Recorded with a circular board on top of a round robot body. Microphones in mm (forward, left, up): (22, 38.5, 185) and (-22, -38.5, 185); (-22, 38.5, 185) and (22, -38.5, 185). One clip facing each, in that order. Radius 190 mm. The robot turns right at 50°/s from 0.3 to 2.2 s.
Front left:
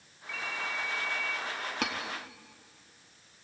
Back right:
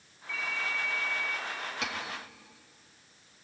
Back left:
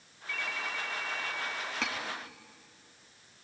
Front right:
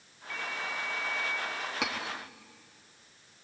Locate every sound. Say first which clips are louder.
0.3 s a ringtone: back right 1 dB, even; 100° left, 1.7 m; by 1.4 s 155° left, 1.7 m
1.8 s cutlery clinking: front left 4 dB, front right 2 dB; 20° left, 1.7 m; by 1.9 s 25° left, 1.7 m